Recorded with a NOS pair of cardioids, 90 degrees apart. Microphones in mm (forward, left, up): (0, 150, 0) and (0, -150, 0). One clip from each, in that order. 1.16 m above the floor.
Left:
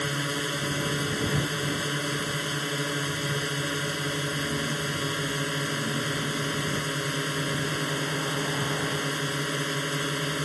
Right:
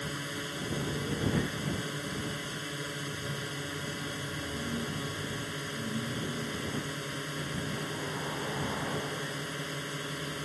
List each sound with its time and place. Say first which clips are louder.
0.0 s a drone: left 8 dB; 60° left